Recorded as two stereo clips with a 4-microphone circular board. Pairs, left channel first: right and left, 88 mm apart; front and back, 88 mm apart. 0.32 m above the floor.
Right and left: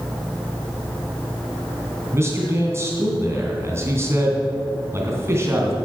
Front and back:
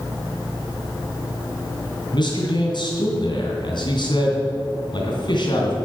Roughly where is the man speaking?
Ahead left.